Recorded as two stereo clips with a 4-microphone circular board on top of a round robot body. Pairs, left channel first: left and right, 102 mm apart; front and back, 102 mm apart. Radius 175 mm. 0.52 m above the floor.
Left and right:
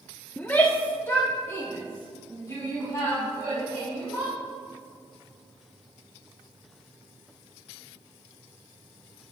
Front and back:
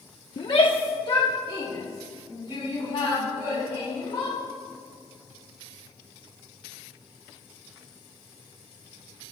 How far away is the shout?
About 1.2 m.